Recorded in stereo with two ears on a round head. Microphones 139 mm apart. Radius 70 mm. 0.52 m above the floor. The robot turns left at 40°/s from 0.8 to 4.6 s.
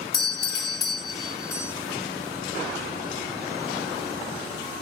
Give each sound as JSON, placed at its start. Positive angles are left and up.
{"t": 0.1, "sound": "a doorbell", "azimuth_deg": 65, "distance_m": 1.5}